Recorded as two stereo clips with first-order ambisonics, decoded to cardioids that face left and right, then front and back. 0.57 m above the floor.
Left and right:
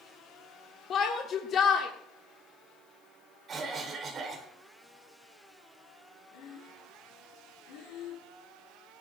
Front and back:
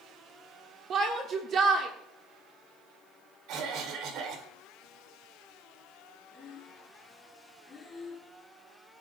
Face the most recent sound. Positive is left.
turn(degrees=80)